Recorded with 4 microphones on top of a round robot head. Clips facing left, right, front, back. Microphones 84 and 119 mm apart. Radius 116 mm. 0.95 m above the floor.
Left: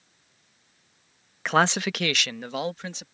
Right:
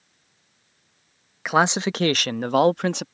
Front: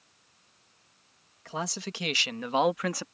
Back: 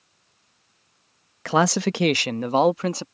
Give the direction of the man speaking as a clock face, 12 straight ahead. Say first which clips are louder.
Right 2 dB, back 15 dB; 6 o'clock.